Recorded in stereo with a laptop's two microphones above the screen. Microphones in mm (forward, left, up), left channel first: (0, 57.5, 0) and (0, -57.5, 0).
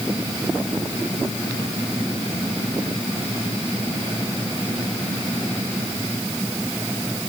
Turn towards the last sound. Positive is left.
No sound to turn to.